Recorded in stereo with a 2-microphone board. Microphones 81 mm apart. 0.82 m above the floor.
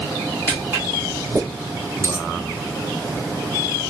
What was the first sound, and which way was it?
Footsteps, 20° right (ahead or behind).